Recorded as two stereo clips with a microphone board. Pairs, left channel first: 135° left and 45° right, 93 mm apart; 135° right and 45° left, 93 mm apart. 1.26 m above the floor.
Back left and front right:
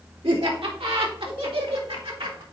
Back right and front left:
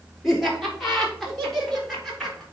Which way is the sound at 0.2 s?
45° right.